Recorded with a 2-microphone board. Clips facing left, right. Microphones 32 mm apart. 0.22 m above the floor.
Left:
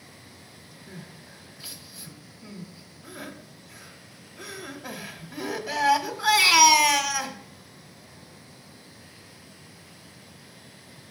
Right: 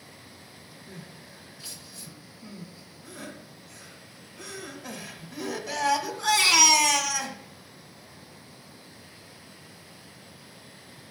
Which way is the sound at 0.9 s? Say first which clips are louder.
Left 2 dB; 20° left (ahead or behind).